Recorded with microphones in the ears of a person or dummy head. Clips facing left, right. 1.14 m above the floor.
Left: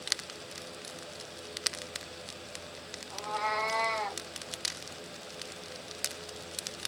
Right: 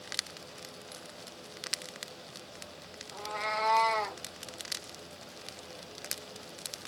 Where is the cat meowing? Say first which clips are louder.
Left 2 dB; 10° right (ahead or behind), 0.7 m; by 4.2 s 65° right (ahead or behind), 1.2 m.